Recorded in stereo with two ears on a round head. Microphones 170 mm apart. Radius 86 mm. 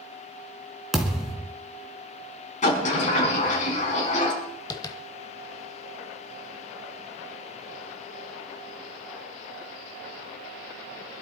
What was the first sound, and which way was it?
A thud, 5° right (ahead or behind).